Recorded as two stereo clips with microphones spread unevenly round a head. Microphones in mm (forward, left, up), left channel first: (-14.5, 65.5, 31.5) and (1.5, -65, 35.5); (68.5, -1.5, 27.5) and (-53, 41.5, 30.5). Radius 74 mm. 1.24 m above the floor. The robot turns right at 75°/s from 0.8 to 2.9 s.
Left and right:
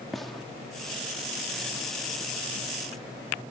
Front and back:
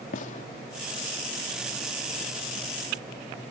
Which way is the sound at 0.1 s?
10° left.